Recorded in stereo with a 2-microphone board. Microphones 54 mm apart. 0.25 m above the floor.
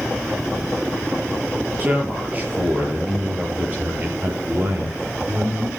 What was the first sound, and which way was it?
A man speaking, 30° right (ahead or behind).